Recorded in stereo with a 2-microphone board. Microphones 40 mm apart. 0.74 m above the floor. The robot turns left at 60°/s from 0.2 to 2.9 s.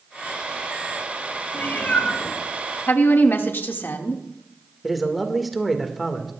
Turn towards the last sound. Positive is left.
turn(degrees=0)  # may be behind; listen again after turning